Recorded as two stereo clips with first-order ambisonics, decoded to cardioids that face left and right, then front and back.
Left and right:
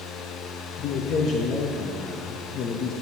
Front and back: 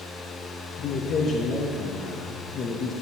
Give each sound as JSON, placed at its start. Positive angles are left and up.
{"t": 0.8, "sound": "a man speaking", "azimuth_deg": 50, "distance_m": 0.5}